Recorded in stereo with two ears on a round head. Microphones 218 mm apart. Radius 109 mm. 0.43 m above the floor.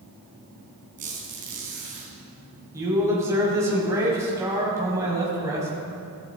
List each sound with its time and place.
1.0 s a squeak: 30° right (ahead or behind), 3.5 m
2.7 s a man speaking: 10° right (ahead or behind), 2.5 m